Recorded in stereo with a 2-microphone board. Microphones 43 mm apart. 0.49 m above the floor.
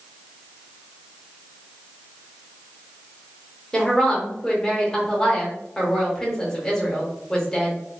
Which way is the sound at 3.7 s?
15° left (ahead or behind).